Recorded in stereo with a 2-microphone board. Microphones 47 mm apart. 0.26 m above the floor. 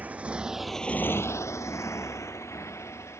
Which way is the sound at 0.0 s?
35° right (ahead or behind).